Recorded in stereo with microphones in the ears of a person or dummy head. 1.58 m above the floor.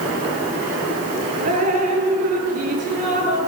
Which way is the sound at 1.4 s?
45° right (ahead or behind).